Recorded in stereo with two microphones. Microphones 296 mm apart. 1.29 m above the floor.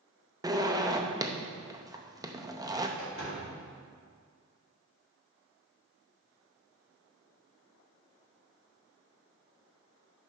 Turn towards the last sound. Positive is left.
turn(degrees=45)  # may be behind; listen again after turning